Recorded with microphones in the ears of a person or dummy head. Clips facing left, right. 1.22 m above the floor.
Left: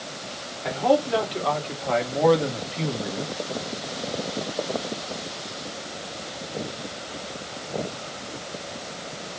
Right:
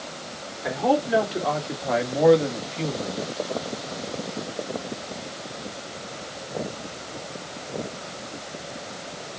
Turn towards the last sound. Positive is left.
turn(degrees=30)  # may be behind; listen again after turning